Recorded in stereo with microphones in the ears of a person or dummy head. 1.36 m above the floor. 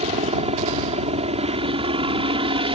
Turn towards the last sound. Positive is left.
turn(degrees=-25)  # may be behind; listen again after turning